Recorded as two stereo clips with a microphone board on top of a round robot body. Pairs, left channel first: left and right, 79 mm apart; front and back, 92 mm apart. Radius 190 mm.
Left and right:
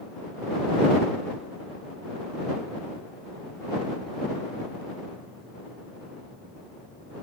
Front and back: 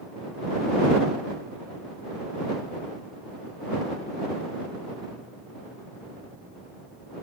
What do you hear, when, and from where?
Only background noise.